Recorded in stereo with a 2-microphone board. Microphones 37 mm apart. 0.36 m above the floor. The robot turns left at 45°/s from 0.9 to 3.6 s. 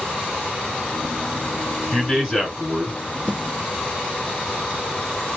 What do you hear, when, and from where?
1.9 s a man speaking: 10° left, 4 m; by 3.0 s 40° right, 4 m
3.3 s a snare drum: 35° right (ahead or behind), 3.5 m; by 3.4 s 40° right (ahead or behind), 3.5 m